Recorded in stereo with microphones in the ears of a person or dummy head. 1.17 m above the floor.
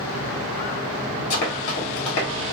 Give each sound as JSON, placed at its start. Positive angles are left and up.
{"t": 1.3, "sound": "running footsteps", "side_deg": 10, "distance_m": 1.2}